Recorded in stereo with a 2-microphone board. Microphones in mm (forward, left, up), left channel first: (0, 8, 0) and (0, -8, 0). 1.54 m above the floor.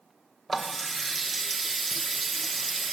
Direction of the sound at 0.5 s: 15° left (ahead or behind).